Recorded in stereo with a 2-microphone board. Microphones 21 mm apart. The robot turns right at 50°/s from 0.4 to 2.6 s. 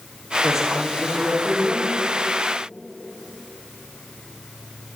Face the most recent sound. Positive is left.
turn(degrees=-60)